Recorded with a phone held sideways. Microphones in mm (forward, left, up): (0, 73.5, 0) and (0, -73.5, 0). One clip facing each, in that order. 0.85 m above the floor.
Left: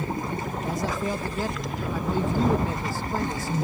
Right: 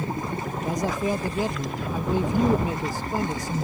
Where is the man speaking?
15° right (ahead or behind).